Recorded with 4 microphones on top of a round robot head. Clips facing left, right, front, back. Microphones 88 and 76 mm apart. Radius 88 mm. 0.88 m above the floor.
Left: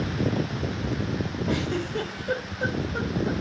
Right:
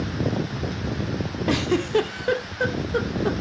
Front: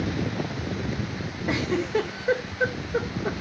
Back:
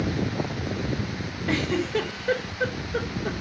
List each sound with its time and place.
1.5 s a giggle: 75° right, 1.5 m